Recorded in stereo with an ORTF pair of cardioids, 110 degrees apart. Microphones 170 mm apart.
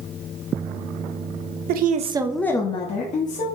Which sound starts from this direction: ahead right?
A woman speaking, at 1.7 s.